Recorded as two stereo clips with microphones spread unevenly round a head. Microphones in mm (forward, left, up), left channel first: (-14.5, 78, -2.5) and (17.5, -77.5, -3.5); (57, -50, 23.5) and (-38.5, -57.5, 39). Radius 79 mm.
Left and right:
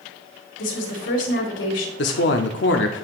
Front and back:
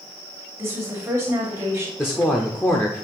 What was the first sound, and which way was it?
A woman speaking, 115° left.